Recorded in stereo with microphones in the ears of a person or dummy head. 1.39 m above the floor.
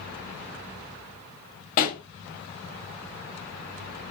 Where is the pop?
45° left (ahead or behind), 2 m.